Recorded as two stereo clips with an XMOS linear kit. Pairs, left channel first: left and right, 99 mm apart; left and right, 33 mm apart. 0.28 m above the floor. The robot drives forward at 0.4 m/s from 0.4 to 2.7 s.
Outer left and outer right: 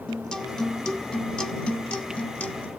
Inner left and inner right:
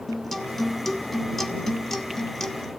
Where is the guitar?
10° left (ahead or behind), 1.6 m; by 2.7 s 15° left (ahead or behind), 0.9 m.